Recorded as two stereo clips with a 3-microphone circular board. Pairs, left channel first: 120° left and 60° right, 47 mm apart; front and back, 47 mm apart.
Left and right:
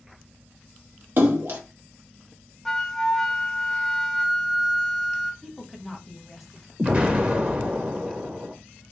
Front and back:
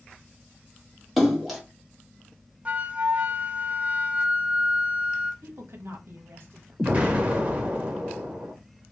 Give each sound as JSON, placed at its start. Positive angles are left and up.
{"t": 1.2, "sound": "a splash", "azimuth_deg": -90, "distance_m": 1.4}
{"t": 2.6, "sound": "a flute", "azimuth_deg": -160, "distance_m": 0.5}
{"t": 5.4, "sound": "a woman speaking", "azimuth_deg": -150, "distance_m": 1.1}
{"t": 6.8, "sound": "an explosion", "azimuth_deg": -125, "distance_m": 1.3}